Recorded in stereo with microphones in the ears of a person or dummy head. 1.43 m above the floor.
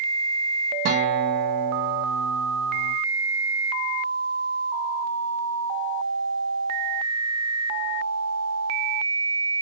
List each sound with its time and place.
0.8 s a guitar: 40° right (ahead or behind), 1.4 m